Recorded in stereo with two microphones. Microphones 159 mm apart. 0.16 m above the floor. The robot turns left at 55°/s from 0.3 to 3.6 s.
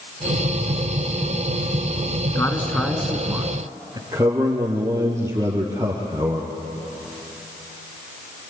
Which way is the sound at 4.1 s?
20° right (ahead or behind).